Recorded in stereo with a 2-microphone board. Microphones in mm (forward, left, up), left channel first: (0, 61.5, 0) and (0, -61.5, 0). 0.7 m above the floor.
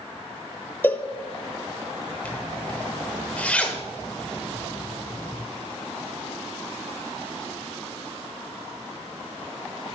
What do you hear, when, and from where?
0.8 s a cowbell: 20° left (ahead or behind), 0.8 m
2.2 s a zipper: 10° left (ahead or behind), 1.3 m